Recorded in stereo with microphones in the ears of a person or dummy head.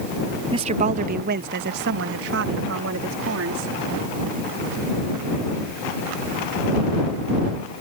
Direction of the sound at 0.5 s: 25° right (ahead or behind).